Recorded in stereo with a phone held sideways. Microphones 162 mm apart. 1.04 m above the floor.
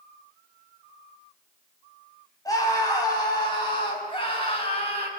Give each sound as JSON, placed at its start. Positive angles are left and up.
{"t": 2.5, "sound": "a scream", "side_deg": 20, "distance_m": 7.0}